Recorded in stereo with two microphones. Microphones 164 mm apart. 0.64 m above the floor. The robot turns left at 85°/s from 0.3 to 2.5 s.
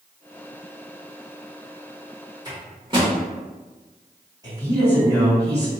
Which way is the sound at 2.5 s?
25° right (ahead or behind).